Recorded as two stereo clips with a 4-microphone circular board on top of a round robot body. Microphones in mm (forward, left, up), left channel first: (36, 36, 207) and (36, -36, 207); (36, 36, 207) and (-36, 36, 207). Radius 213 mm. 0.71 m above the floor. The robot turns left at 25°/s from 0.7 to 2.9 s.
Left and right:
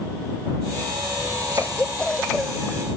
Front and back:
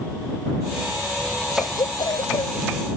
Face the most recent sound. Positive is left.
turn(degrees=-10)